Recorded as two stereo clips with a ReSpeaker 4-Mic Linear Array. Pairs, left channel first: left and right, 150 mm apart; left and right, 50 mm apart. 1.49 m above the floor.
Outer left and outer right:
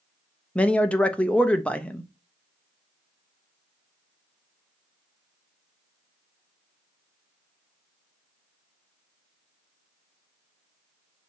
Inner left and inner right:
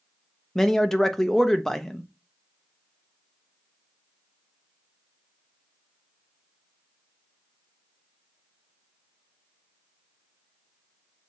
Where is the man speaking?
10° left (ahead or behind), 0.6 m.